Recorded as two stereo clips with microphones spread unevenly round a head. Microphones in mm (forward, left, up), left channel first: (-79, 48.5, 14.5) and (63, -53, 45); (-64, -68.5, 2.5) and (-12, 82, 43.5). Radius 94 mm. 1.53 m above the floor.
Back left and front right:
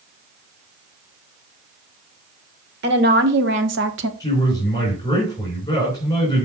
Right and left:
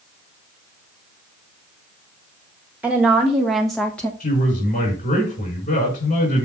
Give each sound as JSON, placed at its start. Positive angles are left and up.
{"t": 2.8, "sound": "a woman speaking", "azimuth_deg": -10, "distance_m": 1.7}
{"t": 4.2, "sound": "a man speaking", "azimuth_deg": -145, "distance_m": 5.0}